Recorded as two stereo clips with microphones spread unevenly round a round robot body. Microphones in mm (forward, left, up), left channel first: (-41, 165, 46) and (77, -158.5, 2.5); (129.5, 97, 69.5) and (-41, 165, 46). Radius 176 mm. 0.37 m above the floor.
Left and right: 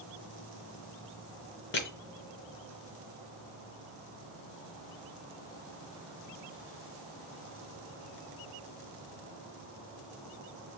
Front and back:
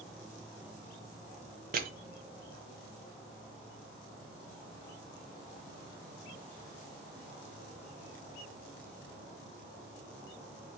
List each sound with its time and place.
1.7 s crushing: 170° left, 0.7 m